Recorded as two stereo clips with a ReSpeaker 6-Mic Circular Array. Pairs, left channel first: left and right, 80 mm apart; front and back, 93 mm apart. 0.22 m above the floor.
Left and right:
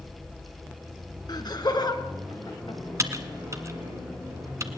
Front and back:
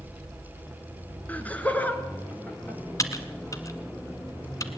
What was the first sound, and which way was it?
Laughter, 75° left.